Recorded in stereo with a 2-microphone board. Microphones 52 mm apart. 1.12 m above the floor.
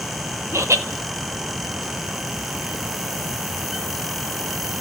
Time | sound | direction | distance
0.5 | laughter | 65° right (ahead or behind) | 1.8 m